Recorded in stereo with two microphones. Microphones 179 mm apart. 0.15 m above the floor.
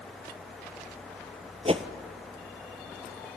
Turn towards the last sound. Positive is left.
turn(degrees=-35)  # may be behind; listen again after turning